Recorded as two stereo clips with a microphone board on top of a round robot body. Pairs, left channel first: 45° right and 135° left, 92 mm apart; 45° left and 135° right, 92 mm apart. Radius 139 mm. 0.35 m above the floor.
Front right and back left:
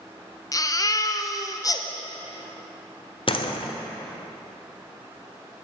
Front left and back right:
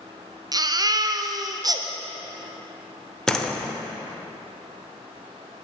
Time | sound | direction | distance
0.5 | a baby crying | 95° right | 0.7 m
3.3 | a door slam | 40° right | 0.8 m